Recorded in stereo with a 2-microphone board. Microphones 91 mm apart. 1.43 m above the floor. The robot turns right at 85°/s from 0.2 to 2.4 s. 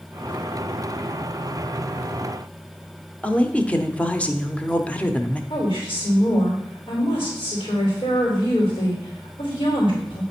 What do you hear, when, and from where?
3.2 s a woman speaking: 15° left (ahead or behind), 0.7 m
5.5 s a woman speaking: 80° left, 3 m